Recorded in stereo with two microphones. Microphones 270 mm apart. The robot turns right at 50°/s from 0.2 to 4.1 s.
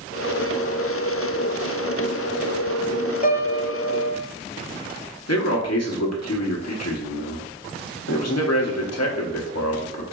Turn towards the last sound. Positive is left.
turn(degrees=65)  # may be behind; listen again after turning